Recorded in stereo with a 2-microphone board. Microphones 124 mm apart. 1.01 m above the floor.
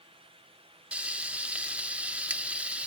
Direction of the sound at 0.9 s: 10° right (ahead or behind).